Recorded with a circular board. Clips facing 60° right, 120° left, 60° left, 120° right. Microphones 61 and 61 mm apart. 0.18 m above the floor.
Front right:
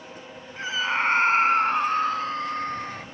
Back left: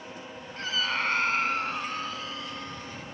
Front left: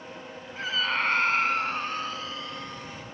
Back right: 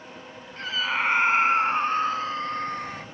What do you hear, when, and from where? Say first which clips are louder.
0.6 s a scream: front right 4 dB, back right 1 dB; 15° right; by 3.0 s 85° right